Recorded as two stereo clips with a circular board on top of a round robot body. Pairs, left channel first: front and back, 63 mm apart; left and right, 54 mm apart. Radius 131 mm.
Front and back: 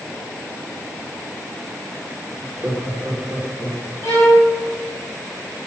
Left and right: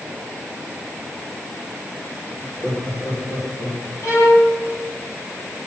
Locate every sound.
2.4 s laughter: 155° left, 2.5 m; by 3.9 s 95° left, 2.5 m
4.0 s a violin: 50° left, 3 m